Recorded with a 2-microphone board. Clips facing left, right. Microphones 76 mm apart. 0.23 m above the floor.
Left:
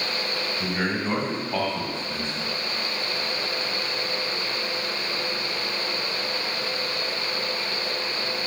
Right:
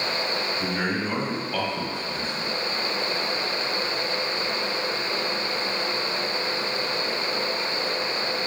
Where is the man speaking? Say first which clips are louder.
Left 2 dB; 5° left (ahead or behind), 1.1 m; by 2.5 s 25° left (ahead or behind), 1.4 m.